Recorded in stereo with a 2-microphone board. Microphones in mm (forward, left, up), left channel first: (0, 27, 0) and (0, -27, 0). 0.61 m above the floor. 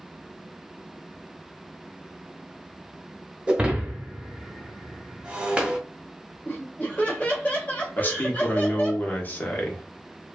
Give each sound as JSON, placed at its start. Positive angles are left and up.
{"t": 3.5, "sound": "breaking glass", "side_deg": -25, "distance_m": 0.7}
{"t": 6.5, "sound": "laughter", "side_deg": 30, "distance_m": 1.3}
{"t": 8.0, "sound": "a man speaking", "side_deg": 35, "distance_m": 0.9}